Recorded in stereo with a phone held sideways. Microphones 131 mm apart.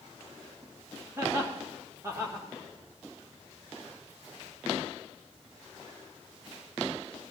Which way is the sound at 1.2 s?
20° right (ahead or behind).